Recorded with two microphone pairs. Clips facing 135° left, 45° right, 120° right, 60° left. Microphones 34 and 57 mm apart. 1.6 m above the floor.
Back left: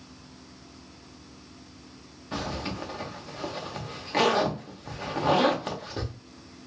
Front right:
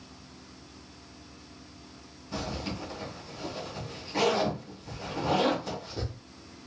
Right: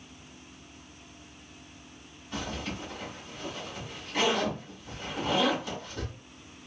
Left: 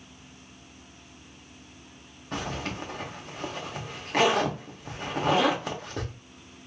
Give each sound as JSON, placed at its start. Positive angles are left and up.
{"t": 2.3, "sound": "a zipper", "azimuth_deg": 95, "distance_m": 0.9}